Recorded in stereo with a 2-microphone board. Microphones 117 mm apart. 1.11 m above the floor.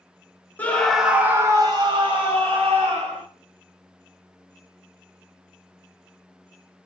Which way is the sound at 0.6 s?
15° left (ahead or behind).